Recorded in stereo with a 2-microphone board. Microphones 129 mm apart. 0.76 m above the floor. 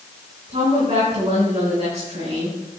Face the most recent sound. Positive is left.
turn(degrees=-55)  # may be behind; listen again after turning